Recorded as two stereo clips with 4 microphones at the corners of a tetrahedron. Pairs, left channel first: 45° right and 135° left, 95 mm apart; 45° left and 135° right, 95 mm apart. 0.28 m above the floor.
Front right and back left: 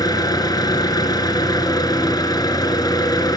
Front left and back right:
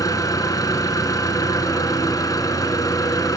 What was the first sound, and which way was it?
An engine running, 5° right.